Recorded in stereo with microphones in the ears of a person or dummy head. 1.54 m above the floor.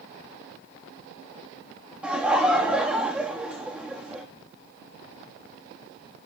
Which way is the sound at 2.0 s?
5° right (ahead or behind).